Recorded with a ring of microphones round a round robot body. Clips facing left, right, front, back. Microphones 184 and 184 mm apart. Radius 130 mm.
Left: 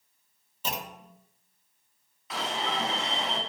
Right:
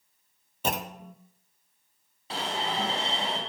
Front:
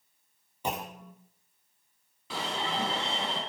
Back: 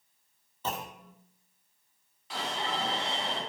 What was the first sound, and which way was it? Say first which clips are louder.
A clunk: right 5 dB, front 2 dB; 75° right.